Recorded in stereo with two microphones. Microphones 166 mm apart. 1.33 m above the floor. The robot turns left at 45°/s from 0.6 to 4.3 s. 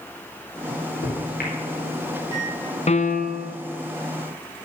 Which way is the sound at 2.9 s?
140° left.